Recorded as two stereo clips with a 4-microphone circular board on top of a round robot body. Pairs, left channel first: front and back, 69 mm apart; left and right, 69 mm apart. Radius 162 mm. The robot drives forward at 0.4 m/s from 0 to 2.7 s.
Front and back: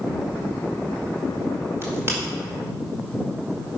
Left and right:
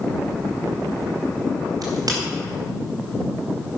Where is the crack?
125° right, 2.5 m.